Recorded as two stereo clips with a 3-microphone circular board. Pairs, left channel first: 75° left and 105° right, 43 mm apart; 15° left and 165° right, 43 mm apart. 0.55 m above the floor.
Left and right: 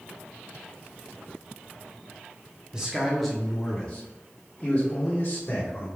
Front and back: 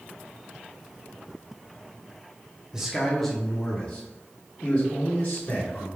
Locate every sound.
2.7 s a man speaking: 120° right, 0.8 m; by 5.9 s 35° left, 1.6 m